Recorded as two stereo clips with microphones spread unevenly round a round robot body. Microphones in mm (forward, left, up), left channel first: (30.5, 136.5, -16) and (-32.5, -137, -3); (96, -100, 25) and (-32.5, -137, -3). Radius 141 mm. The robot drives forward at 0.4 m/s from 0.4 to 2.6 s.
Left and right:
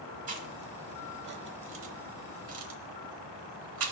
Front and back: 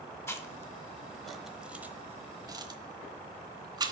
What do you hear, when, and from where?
0.3 s chewing: 45° right, 1.2 m; by 3.9 s 100° right, 0.9 m